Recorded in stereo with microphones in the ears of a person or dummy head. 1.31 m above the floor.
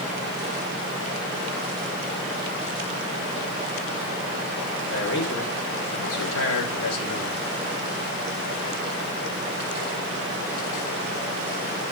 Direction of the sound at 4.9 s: 75° left (ahead or behind).